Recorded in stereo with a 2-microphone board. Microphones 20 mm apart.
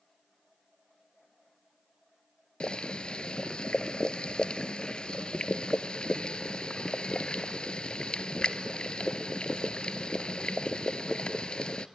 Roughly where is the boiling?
Left.